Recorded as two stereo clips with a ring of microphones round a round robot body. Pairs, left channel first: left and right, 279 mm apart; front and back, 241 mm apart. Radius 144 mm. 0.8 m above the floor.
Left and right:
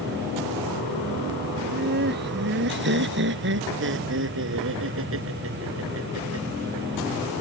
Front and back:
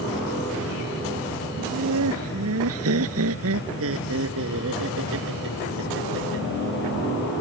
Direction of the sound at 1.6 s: 145° right.